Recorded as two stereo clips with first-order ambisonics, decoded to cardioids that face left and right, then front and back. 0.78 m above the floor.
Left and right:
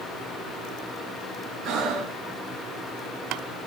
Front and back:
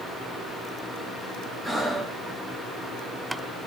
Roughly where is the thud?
I don't hear a thud.